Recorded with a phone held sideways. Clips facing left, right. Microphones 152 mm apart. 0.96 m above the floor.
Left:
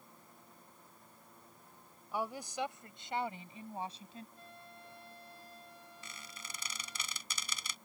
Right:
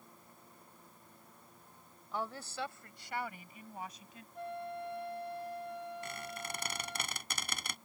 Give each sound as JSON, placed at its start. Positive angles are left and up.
{"t": 2.1, "sound": "a woman speaking", "side_deg": 10}
{"t": 4.3, "sound": "a flute", "side_deg": -75}
{"t": 6.0, "sound": "a squeak", "side_deg": -60}